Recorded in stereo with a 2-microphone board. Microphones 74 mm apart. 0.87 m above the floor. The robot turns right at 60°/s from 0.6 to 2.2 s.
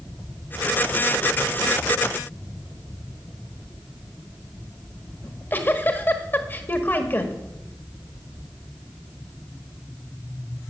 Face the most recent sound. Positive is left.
turn(degrees=30)  # may be behind; listen again after turning